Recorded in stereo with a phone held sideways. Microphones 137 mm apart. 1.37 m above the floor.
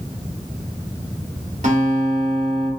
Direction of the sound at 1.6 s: 60° right (ahead or behind).